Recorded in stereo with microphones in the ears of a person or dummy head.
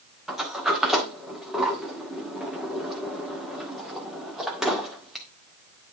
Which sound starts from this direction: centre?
A sliding door, at 0.3 s.